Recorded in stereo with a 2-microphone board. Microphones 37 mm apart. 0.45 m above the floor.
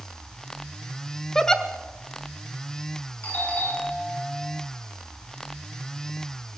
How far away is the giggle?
About 1.2 m.